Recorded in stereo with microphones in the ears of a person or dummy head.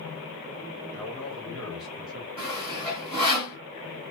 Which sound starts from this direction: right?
Sawing, at 2.4 s.